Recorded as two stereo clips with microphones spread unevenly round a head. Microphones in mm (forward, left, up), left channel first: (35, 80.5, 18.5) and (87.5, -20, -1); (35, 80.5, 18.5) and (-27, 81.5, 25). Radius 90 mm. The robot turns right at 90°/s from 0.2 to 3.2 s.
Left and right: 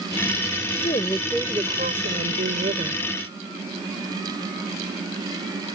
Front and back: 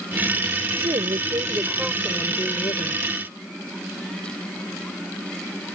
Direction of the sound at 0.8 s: 160° left.